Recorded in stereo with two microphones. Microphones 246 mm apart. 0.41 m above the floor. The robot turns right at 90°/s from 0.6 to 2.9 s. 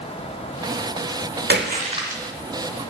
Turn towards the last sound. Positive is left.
turn(degrees=55)